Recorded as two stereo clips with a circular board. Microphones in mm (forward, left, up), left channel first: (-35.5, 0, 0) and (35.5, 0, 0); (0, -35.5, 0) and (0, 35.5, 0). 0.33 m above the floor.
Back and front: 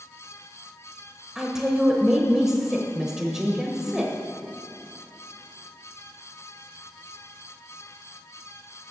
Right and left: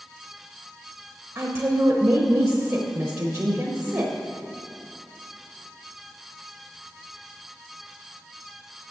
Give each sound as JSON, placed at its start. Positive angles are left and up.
{"t": 1.4, "sound": "a woman speaking", "azimuth_deg": 80, "distance_m": 0.9}